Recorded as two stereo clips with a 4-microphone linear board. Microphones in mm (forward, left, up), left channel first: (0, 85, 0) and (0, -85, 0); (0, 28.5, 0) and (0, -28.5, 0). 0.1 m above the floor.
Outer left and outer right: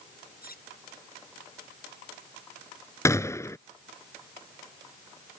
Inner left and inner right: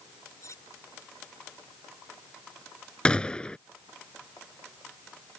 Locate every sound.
0.4 s cutlery clinking: 65° left (ahead or behind)
3.0 s a gunshot: 20° left (ahead or behind)